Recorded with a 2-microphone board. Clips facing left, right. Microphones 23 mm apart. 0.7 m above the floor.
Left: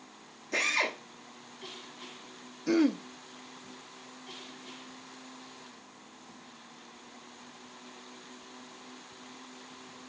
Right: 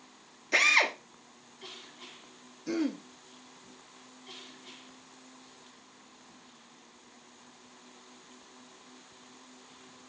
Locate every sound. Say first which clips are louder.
0.5 s a drill: right 5 dB; 35° right (ahead or behind), 1.2 m
2.7 s throat clearing: left 6 dB; 25° left (ahead or behind), 0.5 m